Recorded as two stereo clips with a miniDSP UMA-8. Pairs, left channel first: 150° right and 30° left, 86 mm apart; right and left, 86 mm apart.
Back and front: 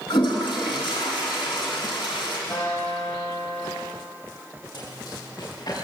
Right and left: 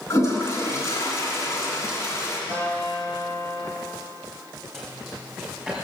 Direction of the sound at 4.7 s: Straight behind.